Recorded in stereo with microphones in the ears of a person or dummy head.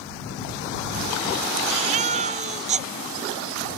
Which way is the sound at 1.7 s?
35° right (ahead or behind).